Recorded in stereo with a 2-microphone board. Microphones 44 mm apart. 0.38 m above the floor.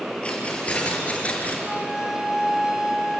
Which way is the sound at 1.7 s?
15° right (ahead or behind).